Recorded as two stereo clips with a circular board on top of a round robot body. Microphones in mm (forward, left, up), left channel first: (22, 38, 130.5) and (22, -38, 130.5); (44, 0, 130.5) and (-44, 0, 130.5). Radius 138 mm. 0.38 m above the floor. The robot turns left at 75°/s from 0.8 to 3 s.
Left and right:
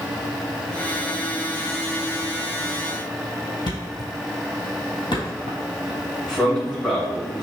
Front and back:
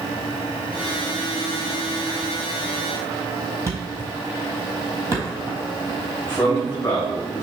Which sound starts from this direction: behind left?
A thud, at 3.7 s.